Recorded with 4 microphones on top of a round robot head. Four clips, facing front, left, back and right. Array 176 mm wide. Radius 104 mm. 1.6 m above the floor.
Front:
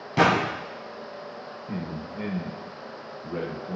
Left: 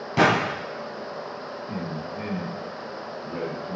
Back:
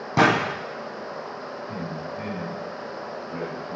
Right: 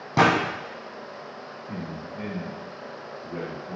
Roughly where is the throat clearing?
No throat clearing in this recording.